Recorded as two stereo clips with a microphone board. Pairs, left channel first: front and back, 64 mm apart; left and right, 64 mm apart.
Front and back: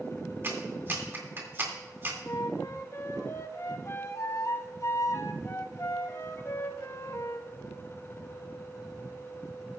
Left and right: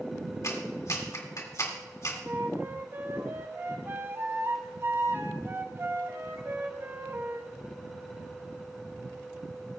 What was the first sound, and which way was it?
A clap, 125° left.